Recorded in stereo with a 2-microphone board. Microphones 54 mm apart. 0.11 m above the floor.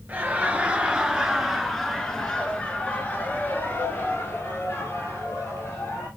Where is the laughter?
30° right (ahead or behind), 1.8 m; by 6.1 s 60° left (ahead or behind), 3 m.